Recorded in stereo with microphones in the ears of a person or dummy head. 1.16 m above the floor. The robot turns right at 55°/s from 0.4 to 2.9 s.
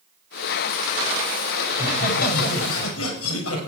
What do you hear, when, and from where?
1.7 s laughter: 25° left, 6 m; by 3.7 s 90° left, 6 m